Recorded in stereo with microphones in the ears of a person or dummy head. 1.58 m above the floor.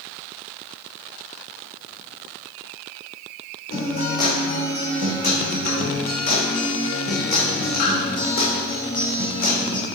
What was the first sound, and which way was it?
A guitar, 45° left (ahead or behind).